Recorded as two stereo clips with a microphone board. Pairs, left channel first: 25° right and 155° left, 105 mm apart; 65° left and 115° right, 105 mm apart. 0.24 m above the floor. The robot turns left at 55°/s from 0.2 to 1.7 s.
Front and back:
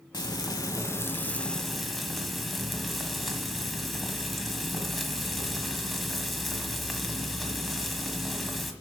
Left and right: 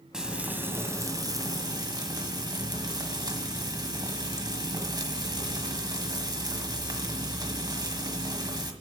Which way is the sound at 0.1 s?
30° right.